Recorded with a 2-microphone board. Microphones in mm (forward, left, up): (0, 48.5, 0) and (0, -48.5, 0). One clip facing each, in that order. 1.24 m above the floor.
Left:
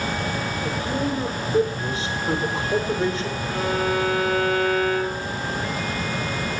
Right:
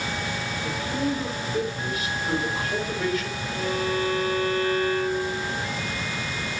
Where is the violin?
80° left, 7 m.